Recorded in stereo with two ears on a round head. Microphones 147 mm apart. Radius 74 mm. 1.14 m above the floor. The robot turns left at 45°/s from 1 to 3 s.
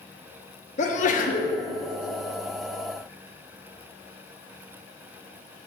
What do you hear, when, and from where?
0.8 s a sneeze: 50° left (ahead or behind), 1.1 m; by 1.6 s 60° left (ahead or behind), 1.1 m